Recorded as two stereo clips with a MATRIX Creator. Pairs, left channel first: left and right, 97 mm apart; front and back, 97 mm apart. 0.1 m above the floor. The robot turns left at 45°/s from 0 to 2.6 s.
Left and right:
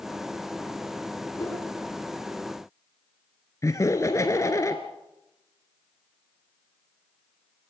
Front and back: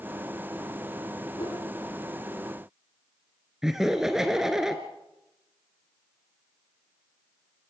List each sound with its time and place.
1.4 s a whoosh: 30° left, 9.5 m; by 1.6 s 20° left, 9.5 m
3.6 s laughter: 100° left, 1.2 m